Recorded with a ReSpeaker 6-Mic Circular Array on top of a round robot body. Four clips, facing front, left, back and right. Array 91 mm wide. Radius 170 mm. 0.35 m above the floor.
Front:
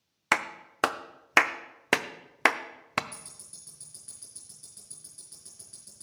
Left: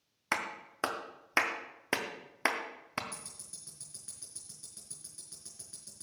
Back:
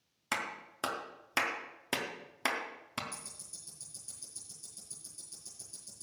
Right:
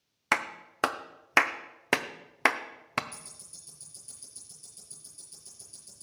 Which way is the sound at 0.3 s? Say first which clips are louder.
Right 5 dB, front 9 dB; 30° right.